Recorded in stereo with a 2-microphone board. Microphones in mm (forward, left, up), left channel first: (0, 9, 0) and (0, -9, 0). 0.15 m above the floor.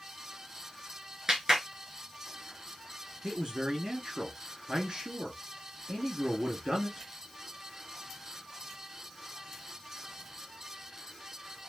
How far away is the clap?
About 2 m.